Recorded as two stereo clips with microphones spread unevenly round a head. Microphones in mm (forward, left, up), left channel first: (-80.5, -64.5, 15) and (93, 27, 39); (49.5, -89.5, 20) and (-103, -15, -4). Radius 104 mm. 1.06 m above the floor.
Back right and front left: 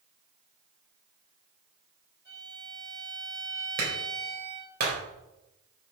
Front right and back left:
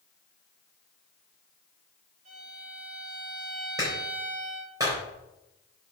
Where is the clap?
80° left, 4 m.